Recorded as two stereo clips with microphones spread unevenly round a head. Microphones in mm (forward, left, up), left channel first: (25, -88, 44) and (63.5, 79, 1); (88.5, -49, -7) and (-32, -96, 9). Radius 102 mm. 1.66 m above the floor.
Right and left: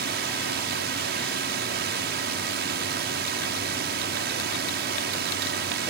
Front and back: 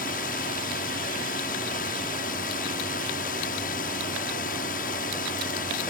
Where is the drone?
55° left.